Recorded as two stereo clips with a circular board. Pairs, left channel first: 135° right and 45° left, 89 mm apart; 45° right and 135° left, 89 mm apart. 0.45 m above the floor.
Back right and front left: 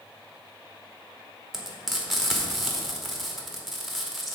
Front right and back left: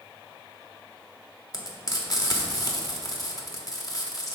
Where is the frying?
45° right, 1.1 m.